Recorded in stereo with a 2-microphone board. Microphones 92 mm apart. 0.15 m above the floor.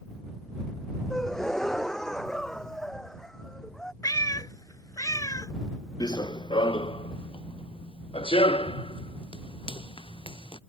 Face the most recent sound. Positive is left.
turn(degrees=70)  # may be behind; listen again after turning